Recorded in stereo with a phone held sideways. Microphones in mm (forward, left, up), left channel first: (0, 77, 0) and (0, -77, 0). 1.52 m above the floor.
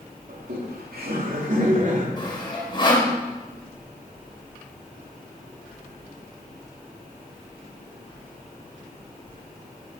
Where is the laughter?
90° right, 3.5 m; by 2.1 s 55° right (ahead or behind), 3.5 m.